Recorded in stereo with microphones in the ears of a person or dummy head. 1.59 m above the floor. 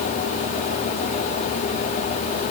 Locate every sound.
Only background noise.